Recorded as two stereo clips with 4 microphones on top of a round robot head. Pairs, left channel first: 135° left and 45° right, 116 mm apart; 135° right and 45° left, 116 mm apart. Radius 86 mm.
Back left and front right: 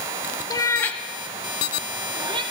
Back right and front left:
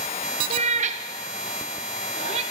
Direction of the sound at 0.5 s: 75° left.